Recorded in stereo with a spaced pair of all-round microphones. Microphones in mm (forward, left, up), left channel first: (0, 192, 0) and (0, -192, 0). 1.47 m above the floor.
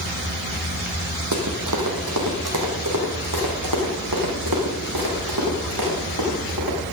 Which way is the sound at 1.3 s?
45° right (ahead or behind).